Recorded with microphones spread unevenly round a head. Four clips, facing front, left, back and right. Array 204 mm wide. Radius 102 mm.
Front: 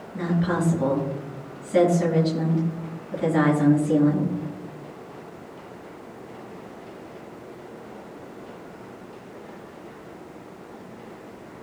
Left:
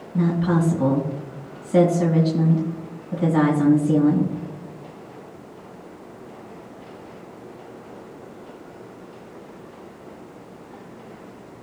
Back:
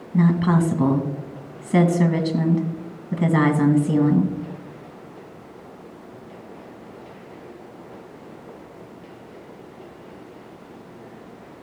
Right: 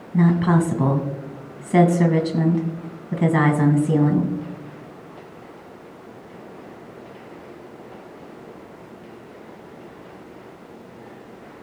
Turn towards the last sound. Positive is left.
turn(degrees=-135)